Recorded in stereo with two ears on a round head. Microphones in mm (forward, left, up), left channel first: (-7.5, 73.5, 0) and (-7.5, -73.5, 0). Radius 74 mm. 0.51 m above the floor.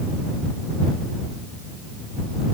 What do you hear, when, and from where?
Only background noise.